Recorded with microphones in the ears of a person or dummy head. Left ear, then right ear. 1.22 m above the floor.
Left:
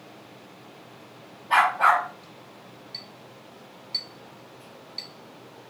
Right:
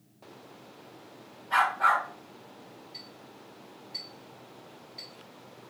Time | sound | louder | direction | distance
1.5 | a dog barking | left 5 dB | 30° left (ahead or behind) | 0.9 m
2.9 | a clink | left 7 dB | 25° left (ahead or behind) | 1.8 m